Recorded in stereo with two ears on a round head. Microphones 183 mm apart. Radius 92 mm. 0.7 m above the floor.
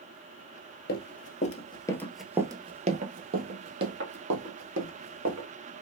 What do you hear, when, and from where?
0.9 s running footsteps: 50° left (ahead or behind), 1.0 m; by 5.5 s 65° right (ahead or behind), 2 m